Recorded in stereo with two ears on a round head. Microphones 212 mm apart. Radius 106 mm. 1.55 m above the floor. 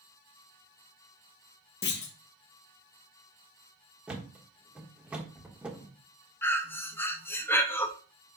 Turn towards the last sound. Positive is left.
turn(degrees=10)  # may be behind; listen again after turning